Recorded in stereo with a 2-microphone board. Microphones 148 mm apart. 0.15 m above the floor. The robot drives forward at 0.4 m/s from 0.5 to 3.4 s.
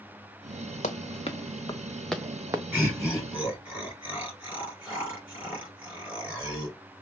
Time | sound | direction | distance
0.8 | running footsteps | 55° left (ahead or behind) | 1.1 m
2.7 | laughter | 10° right (ahead or behind) | 2.5 m